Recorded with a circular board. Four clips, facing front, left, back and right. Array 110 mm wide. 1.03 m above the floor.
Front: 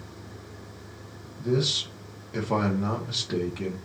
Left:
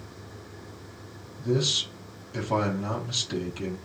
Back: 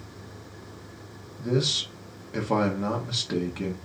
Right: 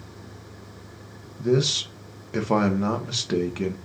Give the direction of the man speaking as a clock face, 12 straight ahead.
3 o'clock.